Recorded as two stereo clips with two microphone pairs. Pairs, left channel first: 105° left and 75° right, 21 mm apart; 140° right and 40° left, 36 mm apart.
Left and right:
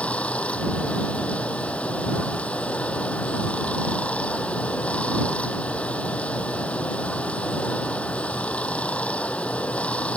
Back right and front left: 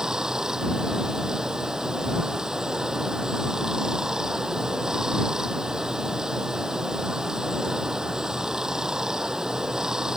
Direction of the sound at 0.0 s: 115° left.